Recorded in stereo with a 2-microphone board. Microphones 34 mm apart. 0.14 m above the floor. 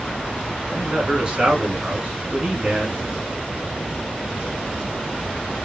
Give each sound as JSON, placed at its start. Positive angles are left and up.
{"t": 0.7, "sound": "a man speaking", "side_deg": -25, "distance_m": 1.2}